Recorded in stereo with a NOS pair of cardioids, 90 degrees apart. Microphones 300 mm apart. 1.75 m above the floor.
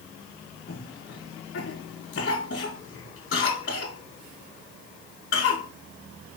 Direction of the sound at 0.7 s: 45° left.